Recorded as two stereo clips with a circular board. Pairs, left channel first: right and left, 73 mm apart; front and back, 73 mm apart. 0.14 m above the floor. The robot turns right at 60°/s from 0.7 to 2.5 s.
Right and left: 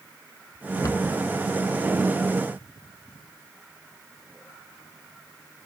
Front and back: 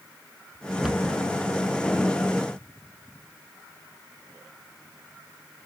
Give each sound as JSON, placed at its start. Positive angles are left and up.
{"t": 0.8, "sound": "a cupboard door", "azimuth_deg": -100, "distance_m": 0.5}